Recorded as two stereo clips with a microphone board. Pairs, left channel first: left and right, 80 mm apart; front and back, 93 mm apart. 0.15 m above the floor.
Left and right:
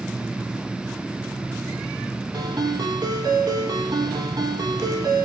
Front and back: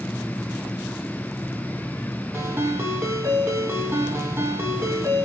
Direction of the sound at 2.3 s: 120° right.